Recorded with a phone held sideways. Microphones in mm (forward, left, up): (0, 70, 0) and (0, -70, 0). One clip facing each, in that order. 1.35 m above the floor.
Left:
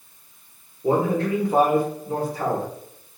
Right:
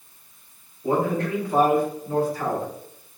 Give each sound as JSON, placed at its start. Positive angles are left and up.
{"t": 0.8, "sound": "a man speaking", "side_deg": 20, "distance_m": 1.7}